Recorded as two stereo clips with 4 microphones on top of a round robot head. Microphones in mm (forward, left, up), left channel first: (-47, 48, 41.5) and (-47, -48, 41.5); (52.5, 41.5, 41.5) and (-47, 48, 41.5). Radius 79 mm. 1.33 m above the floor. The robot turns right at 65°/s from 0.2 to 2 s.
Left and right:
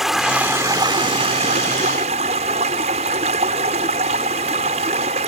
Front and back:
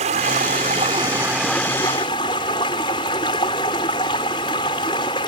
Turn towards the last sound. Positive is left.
turn(degrees=-60)